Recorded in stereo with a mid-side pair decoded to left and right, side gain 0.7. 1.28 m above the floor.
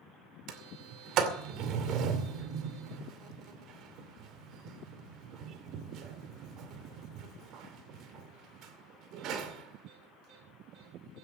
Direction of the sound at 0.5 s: 55° right.